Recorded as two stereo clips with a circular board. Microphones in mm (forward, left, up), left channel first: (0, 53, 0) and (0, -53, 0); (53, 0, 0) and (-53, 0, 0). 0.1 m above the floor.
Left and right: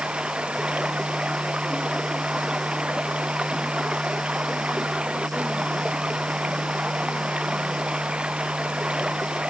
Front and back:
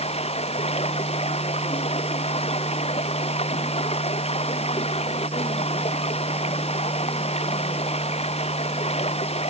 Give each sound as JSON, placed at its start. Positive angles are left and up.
{"t": 0.0, "sound": "running water", "azimuth_deg": -10}